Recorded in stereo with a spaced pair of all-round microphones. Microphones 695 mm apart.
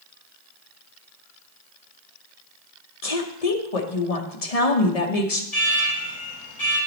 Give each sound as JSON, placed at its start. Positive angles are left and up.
{"t": 3.0, "sound": "a woman speaking", "side_deg": 55, "distance_m": 1.1}
{"t": 5.5, "sound": "an alarm", "side_deg": 30, "distance_m": 4.0}